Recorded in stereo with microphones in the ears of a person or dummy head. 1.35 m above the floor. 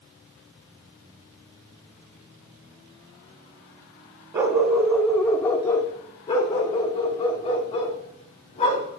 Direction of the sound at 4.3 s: 20° right (ahead or behind).